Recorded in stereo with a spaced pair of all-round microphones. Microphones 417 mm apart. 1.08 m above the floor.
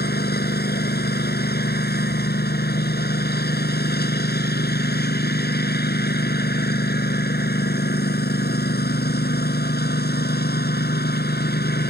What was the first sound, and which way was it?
A lawn mower, 25° left (ahead or behind).